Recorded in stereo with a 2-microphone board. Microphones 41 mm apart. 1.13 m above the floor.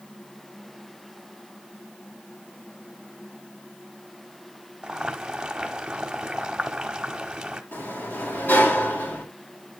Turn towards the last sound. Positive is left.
turn(degrees=60)  # may be behind; listen again after turning